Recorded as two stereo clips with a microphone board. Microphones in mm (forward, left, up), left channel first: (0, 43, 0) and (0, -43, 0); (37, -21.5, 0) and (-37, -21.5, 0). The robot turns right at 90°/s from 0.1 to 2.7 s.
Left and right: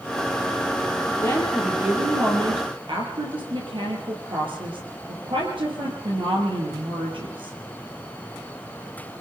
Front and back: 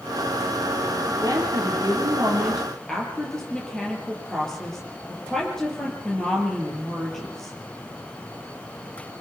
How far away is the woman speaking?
About 7 m.